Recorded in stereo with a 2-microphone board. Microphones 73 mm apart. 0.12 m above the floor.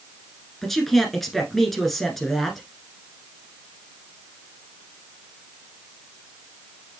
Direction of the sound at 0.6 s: 5° left (ahead or behind).